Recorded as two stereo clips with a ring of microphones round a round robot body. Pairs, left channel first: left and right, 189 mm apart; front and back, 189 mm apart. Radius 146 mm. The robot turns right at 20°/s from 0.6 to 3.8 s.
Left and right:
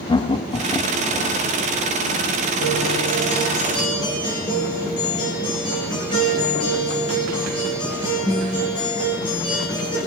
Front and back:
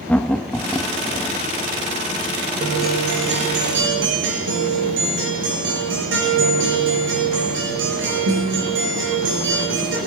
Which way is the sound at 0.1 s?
75° left.